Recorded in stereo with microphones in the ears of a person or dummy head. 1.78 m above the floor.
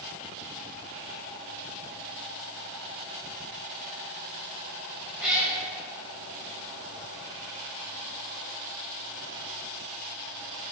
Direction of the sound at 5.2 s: 10° right (ahead or behind).